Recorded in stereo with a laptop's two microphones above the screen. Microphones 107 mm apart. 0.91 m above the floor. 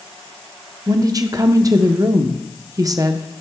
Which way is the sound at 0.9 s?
35° right (ahead or behind).